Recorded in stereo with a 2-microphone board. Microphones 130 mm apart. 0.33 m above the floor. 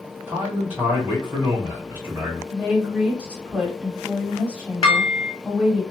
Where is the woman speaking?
10° right (ahead or behind), 1.4 m.